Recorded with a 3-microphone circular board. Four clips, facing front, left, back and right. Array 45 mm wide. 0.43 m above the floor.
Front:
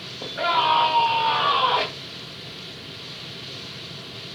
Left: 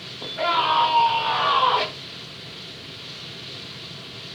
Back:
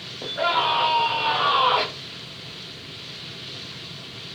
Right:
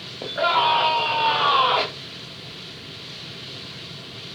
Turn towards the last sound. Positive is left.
turn(degrees=-120)